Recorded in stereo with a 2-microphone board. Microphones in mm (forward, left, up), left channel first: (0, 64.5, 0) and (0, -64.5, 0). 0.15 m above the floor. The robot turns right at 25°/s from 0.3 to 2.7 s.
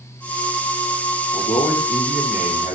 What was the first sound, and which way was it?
A man speaking, 80° left.